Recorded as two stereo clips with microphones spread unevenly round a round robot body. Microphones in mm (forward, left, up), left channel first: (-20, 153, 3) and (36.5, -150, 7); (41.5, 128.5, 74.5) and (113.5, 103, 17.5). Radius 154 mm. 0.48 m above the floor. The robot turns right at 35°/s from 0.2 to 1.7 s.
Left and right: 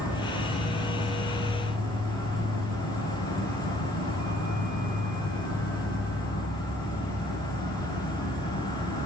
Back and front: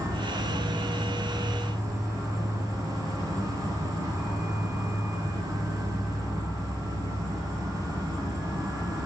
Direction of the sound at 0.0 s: 165° right.